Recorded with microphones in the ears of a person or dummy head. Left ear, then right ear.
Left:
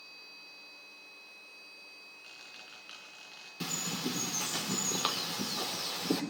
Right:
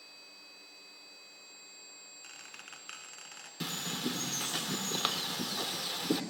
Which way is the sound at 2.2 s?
35° right (ahead or behind).